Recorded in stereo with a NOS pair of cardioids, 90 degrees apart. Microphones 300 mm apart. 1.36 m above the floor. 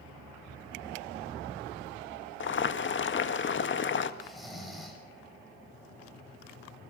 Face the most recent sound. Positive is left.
turn(degrees=0)